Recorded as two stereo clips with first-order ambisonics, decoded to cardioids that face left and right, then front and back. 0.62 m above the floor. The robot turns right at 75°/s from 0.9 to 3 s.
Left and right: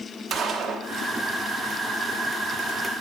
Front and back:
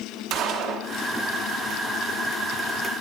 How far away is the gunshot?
About 1.2 m.